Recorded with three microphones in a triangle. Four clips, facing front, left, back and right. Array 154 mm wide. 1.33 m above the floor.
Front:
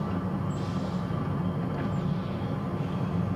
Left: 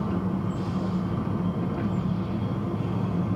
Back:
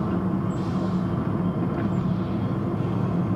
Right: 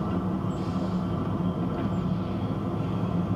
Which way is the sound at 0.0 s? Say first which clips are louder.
Left 1 dB, back 6 dB; 165° left.